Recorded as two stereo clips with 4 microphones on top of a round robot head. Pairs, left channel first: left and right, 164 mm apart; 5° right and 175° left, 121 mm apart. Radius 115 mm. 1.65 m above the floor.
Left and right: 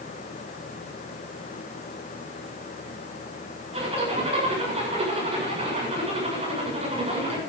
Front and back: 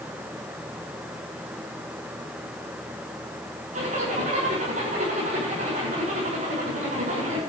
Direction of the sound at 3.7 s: 145° right.